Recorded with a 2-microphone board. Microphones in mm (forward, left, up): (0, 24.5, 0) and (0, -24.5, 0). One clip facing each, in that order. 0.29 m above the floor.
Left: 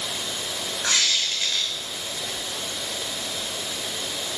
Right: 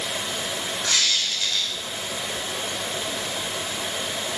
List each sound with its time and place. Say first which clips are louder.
0.8 s a squeak: left 1 dB; 30° left (ahead or behind), 2.5 m